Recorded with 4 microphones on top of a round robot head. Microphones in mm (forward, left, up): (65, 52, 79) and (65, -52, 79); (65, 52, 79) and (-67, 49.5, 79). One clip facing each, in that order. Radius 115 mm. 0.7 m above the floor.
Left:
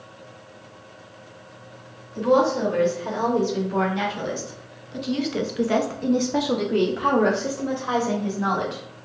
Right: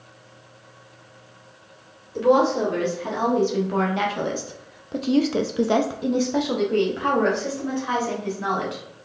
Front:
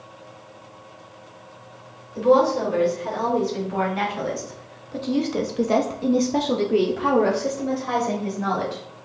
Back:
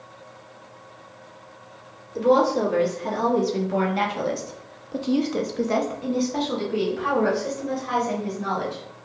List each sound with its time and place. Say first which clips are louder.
2.1 s a woman speaking: right 1 dB, front 1 dB; 135° right, 2.0 m; by 8.8 s 30° left, 1.8 m